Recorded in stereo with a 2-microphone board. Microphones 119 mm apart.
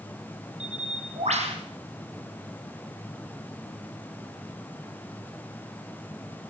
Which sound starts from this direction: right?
A bird, at 0.6 s.